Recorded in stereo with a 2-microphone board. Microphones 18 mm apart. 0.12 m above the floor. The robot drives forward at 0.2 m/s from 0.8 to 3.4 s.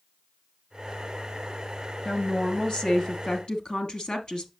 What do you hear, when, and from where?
2.0 s a woman speaking: 55° left (ahead or behind), 1.9 m